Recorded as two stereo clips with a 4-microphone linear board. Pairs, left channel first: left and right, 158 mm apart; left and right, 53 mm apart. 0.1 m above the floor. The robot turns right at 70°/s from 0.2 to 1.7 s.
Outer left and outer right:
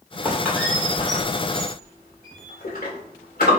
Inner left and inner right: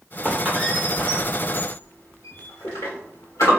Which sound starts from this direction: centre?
A squeak, at 0.2 s.